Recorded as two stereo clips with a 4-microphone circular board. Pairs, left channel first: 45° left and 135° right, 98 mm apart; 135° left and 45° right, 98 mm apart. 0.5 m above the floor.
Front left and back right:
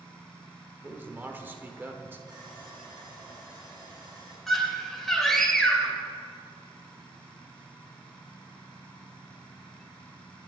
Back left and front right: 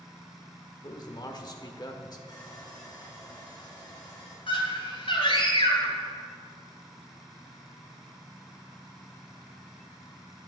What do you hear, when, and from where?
0.8 s a man speaking: 165° left, 1.2 m
2.3 s sawing: straight behind, 4.5 m
4.5 s a scream: 135° left, 2.5 m